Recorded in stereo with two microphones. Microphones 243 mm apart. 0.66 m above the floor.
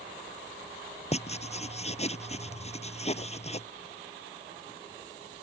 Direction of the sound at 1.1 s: 25° left (ahead or behind).